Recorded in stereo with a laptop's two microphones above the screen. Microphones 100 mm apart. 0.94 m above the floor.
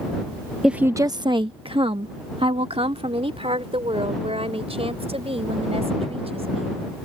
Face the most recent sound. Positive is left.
turn(degrees=-85)